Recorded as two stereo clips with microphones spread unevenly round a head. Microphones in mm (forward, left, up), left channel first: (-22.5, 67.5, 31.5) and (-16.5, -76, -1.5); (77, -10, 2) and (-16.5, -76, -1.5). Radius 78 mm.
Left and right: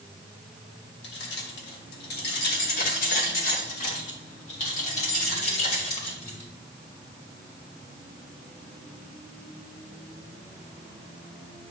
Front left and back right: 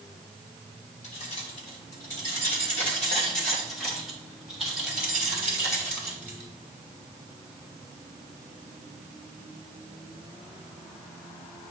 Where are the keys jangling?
85° left, 1.8 m; by 6.5 s 140° left, 5 m.